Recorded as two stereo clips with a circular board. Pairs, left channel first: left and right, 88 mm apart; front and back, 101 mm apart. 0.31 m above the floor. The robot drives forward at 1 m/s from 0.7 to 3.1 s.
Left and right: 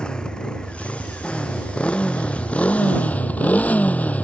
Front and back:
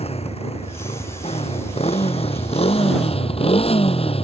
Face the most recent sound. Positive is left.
turn(degrees=15)